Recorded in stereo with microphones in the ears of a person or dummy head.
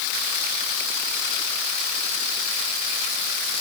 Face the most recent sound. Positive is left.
No sound to turn to.